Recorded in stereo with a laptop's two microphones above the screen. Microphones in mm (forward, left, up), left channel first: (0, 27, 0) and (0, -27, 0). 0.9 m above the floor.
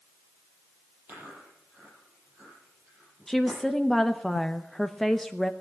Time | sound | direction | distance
1.1 | chewing | 40° right (ahead or behind) | 10 m
3.3 | a woman speaking | 5° left (ahead or behind) | 0.7 m